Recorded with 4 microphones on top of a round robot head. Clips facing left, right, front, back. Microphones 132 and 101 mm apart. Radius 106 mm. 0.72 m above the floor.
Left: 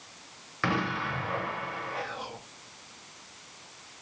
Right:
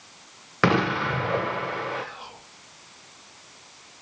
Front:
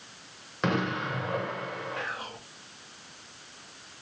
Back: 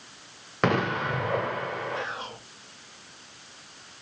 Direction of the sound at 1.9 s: 120° left.